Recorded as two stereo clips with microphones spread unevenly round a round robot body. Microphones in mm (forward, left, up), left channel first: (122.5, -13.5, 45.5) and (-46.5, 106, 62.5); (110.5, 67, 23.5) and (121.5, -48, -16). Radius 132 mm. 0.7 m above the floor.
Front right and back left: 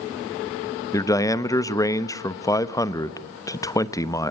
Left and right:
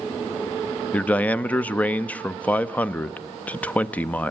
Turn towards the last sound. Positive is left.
turn(degrees=-15)